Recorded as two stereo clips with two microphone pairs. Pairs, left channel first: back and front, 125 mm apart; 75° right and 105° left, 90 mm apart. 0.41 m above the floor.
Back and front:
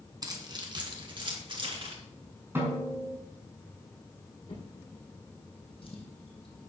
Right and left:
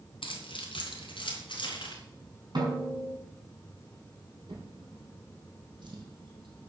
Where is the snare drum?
70° left, 5.5 m.